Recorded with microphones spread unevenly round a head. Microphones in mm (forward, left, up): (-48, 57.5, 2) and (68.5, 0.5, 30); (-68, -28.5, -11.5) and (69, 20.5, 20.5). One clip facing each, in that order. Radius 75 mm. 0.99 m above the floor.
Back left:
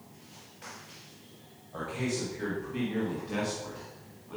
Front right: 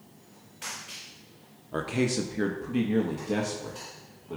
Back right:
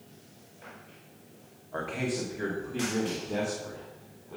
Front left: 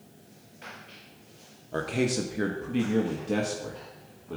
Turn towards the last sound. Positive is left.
turn(degrees=25)